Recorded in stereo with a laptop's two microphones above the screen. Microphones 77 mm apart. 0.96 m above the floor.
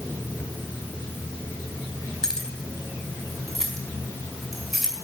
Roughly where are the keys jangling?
Centre.